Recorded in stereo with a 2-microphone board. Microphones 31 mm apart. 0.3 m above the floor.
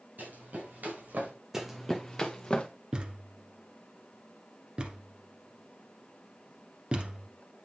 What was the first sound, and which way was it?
Running footsteps, 85° right.